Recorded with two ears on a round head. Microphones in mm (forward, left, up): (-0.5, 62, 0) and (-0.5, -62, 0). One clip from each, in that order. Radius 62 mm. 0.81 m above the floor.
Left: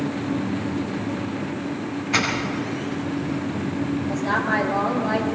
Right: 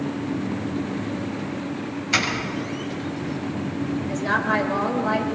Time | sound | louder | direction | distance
2.1 | a doorbell | even | 65° right (ahead or behind) | 6.5 m
4.1 | a woman speaking | right 1 dB | 40° right (ahead or behind) | 3.5 m